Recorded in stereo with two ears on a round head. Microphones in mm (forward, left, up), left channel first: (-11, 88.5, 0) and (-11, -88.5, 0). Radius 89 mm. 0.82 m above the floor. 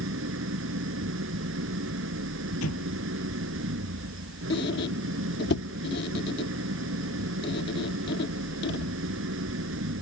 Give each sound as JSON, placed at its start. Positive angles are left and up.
{"t": 0.0, "sound": "an engine running", "side_deg": -75}
{"t": 2.6, "sound": "an explosion", "side_deg": 80}
{"t": 4.5, "sound": "a squeak", "side_deg": 55}